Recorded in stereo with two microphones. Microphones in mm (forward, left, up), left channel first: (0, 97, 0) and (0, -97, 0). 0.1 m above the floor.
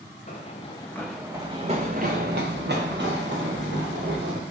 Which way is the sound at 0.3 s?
40° left (ahead or behind).